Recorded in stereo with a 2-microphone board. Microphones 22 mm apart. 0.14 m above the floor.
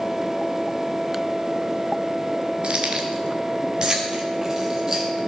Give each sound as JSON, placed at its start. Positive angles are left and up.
{"t": 2.6, "sound": "keys jangling", "side_deg": -50, "distance_m": 1.6}